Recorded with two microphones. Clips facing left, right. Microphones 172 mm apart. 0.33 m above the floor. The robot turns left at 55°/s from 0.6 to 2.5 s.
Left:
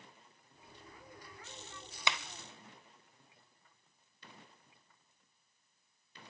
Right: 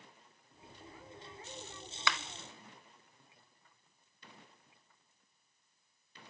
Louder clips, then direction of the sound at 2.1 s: Right 1 dB; 20° left (ahead or behind).